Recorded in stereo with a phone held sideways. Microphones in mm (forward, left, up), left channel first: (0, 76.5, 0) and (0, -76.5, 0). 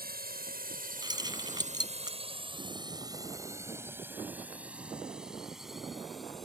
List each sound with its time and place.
0.0 s a drone: 85° right; by 6.5 s centre (ahead or behind)
1.0 s keys jangling: 25° right (ahead or behind)